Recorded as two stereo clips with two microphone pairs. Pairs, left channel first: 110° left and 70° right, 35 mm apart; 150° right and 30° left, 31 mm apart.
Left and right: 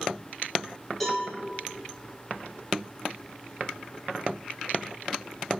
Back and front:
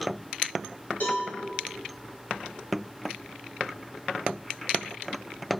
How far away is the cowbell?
About 1.2 m.